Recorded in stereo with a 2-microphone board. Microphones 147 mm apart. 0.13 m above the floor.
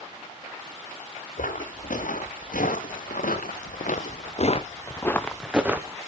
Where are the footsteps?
75° left (ahead or behind), 2.5 m; by 6.0 s 20° right (ahead or behind), 1.1 m.